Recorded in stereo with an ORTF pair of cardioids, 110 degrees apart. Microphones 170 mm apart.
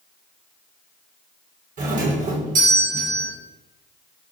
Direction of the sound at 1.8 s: 55° right.